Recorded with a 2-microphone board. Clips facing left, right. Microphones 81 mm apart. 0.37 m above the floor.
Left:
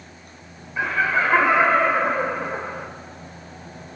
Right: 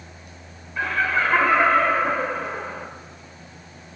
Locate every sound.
0.8 s laughter: 10° left (ahead or behind), 1.2 m